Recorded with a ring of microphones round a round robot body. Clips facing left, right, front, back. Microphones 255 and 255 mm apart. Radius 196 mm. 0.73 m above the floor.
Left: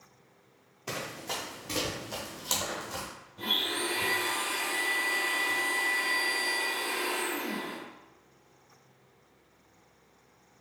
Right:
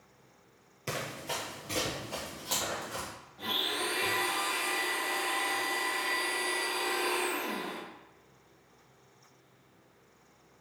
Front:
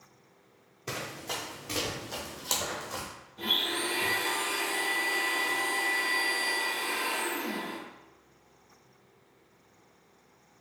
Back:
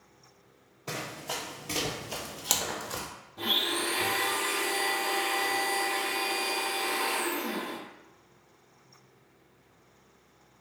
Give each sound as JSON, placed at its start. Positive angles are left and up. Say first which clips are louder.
{"t": 0.9, "sound": "running footsteps", "louder": "even, even", "azimuth_deg": -65, "distance_m": 0.7}
{"t": 3.4, "sound": "a blender", "louder": "left 2 dB, back 2 dB", "azimuth_deg": 150, "distance_m": 0.9}